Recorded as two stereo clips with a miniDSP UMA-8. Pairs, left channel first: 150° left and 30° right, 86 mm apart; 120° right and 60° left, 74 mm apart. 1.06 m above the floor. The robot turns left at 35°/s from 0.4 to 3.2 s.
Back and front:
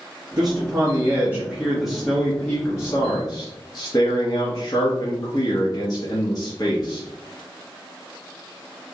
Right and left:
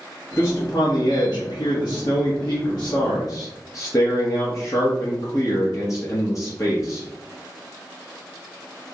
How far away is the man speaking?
About 0.9 m.